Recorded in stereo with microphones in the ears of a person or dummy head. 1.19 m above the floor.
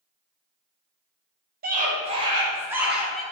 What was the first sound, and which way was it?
A scream, 45° right (ahead or behind).